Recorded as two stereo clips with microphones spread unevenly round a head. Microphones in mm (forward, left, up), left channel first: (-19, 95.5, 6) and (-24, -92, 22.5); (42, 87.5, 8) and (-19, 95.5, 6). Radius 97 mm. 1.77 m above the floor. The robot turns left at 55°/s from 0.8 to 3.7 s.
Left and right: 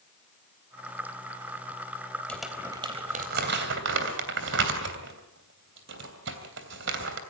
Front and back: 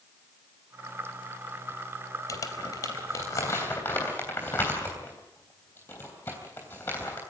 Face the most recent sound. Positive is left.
turn(degrees=-75)